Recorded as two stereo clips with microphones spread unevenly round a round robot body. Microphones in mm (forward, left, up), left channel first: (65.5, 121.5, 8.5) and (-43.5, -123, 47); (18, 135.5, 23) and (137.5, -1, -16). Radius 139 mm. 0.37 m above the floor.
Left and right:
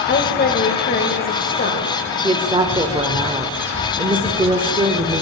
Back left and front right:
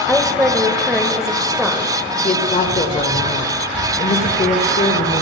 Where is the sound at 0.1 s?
30° left, 1.6 m.